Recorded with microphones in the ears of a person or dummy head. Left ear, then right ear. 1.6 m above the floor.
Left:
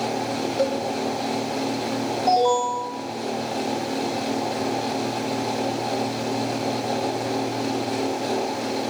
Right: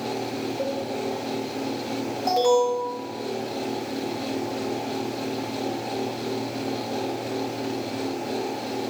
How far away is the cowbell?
About 1.7 m.